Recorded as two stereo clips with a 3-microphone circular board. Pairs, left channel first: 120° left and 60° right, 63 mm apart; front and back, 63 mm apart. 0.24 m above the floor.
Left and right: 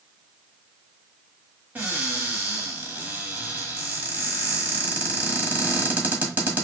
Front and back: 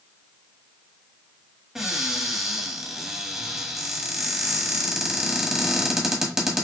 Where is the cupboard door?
100° right, 1.7 m.